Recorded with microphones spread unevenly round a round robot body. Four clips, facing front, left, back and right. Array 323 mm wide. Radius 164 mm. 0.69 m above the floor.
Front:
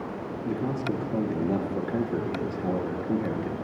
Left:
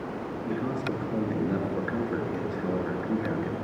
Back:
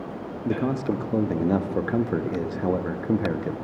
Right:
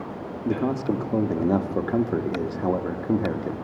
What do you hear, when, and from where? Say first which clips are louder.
0.5 s a man speaking: right 7 dB, back 4 dB; 110° right, 0.6 m